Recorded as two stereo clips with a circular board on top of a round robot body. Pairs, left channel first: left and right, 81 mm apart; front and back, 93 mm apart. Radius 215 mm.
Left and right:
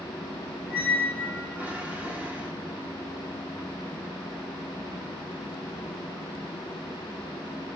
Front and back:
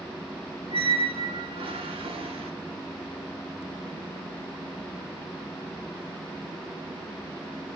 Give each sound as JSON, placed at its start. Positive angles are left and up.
{"t": 0.7, "sound": "a squeak", "azimuth_deg": -160, "distance_m": 2.0}